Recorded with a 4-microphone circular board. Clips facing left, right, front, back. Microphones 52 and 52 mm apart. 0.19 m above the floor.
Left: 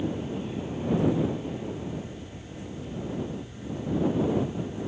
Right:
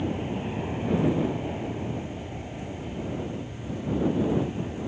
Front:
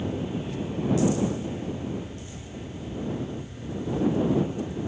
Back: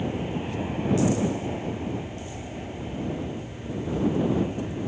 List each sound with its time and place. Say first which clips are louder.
0.0 s an aircraft: right 1 dB, back 1 dB; 130° right